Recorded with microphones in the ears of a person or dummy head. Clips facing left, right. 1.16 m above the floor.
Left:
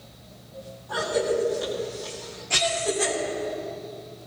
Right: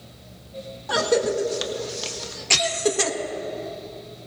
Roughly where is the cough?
Right.